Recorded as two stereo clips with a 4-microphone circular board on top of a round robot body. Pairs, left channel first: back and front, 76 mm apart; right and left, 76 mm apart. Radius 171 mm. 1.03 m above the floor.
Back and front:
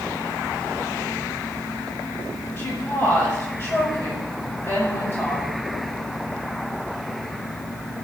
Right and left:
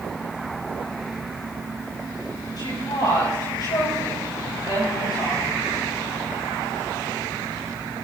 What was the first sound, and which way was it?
A woman speaking, 115° right.